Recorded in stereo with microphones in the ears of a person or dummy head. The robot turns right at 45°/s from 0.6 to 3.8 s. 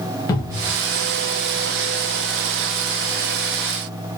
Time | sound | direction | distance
0.3 | a cupboard door | 20° left (ahead or behind) | 0.7 m